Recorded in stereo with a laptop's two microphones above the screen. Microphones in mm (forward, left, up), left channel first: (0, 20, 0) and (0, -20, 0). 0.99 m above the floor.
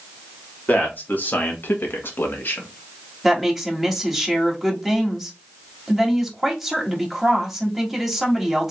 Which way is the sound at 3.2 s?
Centre (ahead or behind).